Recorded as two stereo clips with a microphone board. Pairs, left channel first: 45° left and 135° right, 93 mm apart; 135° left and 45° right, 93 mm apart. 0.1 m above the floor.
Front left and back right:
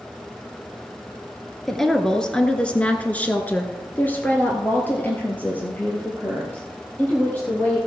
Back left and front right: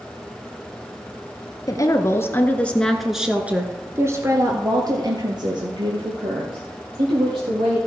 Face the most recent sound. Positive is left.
turn(degrees=-25)